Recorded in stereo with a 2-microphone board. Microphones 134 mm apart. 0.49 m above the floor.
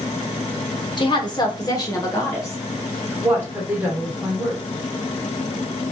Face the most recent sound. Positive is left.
turn(degrees=-15)  # may be behind; listen again after turning